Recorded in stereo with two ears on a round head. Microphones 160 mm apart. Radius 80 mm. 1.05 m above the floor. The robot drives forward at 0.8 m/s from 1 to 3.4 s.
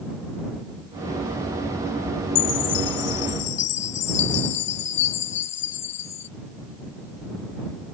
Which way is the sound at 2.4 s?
80° left.